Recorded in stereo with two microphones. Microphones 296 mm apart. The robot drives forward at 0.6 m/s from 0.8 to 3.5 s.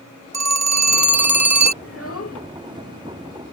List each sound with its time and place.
0.3 s a phone ringing: 60° right (ahead or behind); by 1.7 s 65° right (ahead or behind)
1.8 s a child speaking: 45° left (ahead or behind); by 2.4 s 55° left (ahead or behind)